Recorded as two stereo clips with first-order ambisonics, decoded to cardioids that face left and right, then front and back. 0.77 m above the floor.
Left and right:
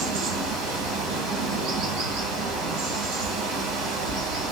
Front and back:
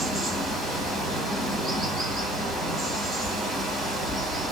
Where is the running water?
95° right, 2 m.